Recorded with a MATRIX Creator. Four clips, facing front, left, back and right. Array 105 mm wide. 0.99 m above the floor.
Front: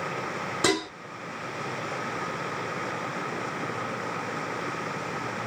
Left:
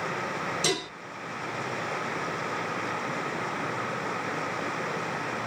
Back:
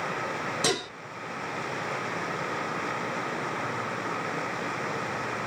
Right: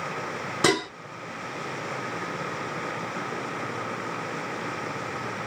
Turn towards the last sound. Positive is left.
turn(degrees=-70)